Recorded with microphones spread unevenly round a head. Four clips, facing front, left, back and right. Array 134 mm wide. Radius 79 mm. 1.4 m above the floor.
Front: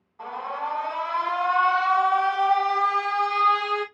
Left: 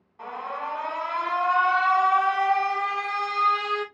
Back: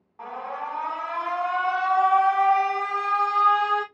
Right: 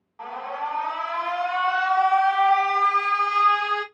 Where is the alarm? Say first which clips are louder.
Right 2 dB, front 2 dB; 170° right, 1.3 m.